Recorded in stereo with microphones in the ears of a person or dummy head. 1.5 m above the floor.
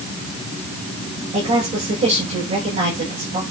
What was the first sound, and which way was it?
A woman speaking, 30° right (ahead or behind).